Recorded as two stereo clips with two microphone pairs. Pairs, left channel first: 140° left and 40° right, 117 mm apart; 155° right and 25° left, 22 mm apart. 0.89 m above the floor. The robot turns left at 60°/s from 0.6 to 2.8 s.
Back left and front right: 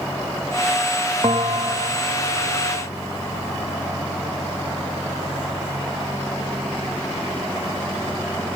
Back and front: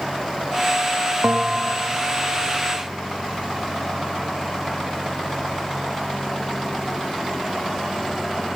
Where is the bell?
10° left, 0.7 m; by 1.9 s 30° right, 0.7 m.